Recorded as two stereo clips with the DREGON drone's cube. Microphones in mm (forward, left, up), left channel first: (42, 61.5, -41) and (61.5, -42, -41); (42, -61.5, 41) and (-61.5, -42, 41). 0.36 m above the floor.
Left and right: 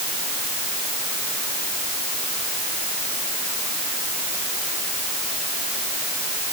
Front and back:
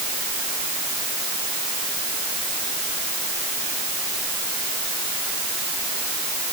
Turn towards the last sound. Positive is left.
No sound to turn to.